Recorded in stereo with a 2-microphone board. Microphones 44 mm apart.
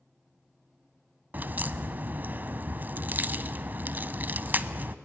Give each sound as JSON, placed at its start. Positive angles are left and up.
{"t": 1.3, "sound": "a crack", "side_deg": -40, "distance_m": 0.7}